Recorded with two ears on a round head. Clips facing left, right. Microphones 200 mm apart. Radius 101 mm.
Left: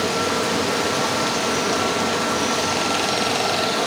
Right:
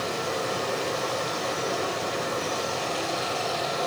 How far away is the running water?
About 1.2 m.